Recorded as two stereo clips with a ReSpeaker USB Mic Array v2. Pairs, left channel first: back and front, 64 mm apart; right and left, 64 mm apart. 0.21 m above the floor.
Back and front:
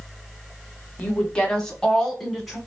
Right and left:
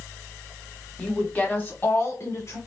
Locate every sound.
1.0 s a woman speaking: 145° right, 1.0 m; by 2.6 s 85° right, 1.6 m